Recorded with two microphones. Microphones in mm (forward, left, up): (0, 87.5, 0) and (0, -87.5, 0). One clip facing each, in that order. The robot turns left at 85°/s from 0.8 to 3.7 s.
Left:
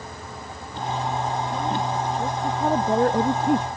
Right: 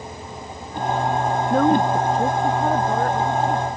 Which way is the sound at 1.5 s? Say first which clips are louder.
Right 8 dB; 85° right.